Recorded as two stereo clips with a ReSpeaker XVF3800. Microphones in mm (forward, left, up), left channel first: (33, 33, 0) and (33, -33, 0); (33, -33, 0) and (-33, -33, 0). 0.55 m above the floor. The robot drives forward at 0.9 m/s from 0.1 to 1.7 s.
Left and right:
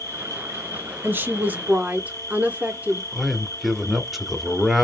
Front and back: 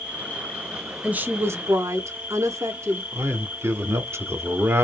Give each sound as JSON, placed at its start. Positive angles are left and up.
{"t": 0.0, "sound": "an insect", "azimuth_deg": -60, "distance_m": 1.7}
{"t": 1.0, "sound": "a woman speaking", "azimuth_deg": -120, "distance_m": 0.9}
{"t": 3.1, "sound": "a man speaking", "azimuth_deg": 180, "distance_m": 1.0}